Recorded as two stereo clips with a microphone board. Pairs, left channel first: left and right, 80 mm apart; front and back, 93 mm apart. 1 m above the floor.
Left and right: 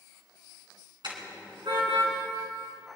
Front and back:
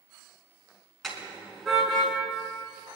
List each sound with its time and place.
1.0 s a car horn: 90° right, 4 m; by 2.1 s 95° right, 3.5 m